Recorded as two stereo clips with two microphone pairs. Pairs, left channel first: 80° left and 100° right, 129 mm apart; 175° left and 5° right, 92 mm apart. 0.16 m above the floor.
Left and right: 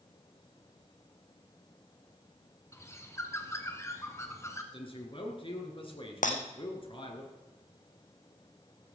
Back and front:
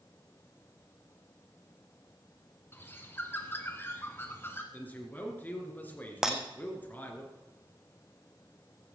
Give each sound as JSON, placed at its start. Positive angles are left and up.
{"t": 2.7, "sound": "a bird", "azimuth_deg": 130, "distance_m": 1.6}
{"t": 4.7, "sound": "a man speaking", "azimuth_deg": 110, "distance_m": 2.5}
{"t": 6.2, "sound": "breaking glass", "azimuth_deg": 80, "distance_m": 1.6}